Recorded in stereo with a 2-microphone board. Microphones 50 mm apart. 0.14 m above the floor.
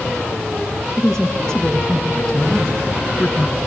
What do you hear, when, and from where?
1.0 s a woman speaking: 10° left (ahead or behind), 1.1 m